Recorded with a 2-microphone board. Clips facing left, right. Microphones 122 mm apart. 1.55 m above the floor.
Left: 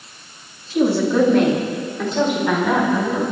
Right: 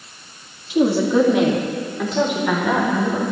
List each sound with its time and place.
0.7 s a woman speaking: 15° right (ahead or behind), 2.5 m; by 3.2 s 5° left (ahead or behind), 5.5 m